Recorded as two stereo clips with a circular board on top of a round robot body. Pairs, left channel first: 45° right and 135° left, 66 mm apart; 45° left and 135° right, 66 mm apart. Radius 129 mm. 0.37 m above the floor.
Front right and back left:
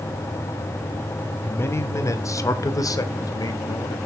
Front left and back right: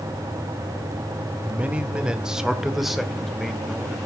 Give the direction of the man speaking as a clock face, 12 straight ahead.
3 o'clock.